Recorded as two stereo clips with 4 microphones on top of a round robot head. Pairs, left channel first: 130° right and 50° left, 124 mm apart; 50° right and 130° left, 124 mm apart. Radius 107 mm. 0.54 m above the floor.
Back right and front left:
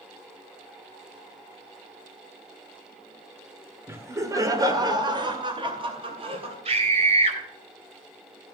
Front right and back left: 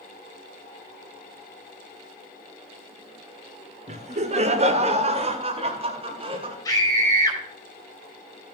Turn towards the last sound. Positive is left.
turn(degrees=10)